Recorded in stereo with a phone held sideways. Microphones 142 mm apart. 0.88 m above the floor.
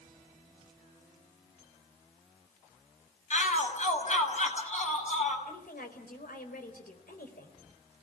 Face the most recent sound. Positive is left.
turn(degrees=80)